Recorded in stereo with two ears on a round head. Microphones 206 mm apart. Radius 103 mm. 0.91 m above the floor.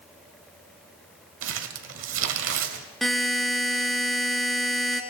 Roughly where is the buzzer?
Centre.